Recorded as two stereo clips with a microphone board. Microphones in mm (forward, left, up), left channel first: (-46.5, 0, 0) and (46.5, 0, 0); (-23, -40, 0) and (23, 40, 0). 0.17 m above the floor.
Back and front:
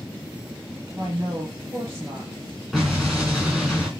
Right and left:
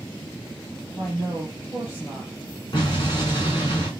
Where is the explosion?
90° right, 3.5 m.